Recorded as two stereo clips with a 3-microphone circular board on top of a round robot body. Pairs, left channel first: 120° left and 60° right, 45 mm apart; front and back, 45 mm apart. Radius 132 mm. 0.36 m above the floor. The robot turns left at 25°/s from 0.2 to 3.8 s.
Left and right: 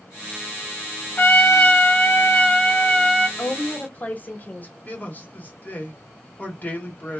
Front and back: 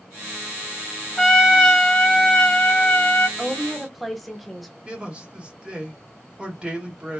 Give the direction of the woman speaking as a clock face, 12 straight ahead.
9 o'clock.